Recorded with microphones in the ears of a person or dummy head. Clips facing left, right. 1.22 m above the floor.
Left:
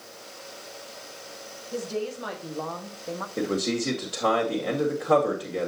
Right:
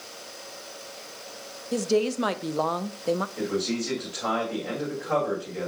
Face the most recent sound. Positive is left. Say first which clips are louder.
# left 1 dB
turn(degrees=60)  # may be behind; listen again after turning